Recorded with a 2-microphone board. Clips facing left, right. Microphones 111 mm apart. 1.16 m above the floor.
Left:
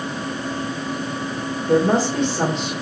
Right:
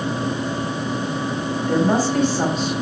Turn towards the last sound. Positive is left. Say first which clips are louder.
# left 2 dB
turn(degrees=25)  # may be behind; listen again after turning